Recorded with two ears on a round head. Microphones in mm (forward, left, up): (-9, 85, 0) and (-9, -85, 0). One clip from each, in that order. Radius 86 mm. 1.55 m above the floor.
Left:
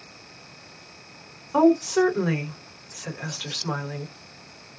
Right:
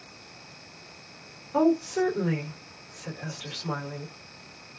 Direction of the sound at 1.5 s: 45° left (ahead or behind).